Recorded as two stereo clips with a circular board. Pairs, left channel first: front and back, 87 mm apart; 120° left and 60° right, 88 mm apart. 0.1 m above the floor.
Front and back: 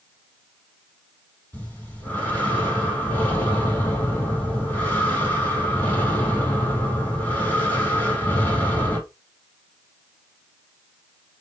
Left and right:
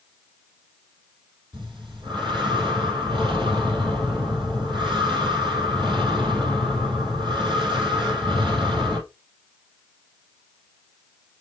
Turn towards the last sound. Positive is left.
turn(degrees=-65)